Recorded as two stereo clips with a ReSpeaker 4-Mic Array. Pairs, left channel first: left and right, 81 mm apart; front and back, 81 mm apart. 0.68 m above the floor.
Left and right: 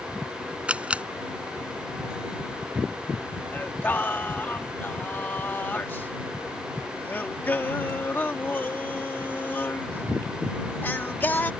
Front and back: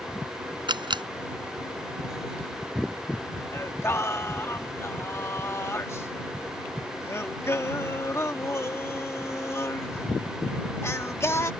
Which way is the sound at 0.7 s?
165° right.